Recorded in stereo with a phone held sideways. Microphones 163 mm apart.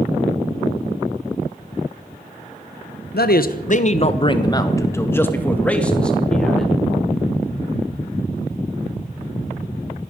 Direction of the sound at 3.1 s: 75° left (ahead or behind).